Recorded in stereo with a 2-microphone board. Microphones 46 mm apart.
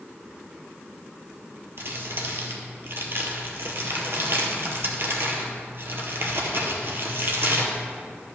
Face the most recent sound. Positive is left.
turn(degrees=-55)  # may be behind; listen again after turning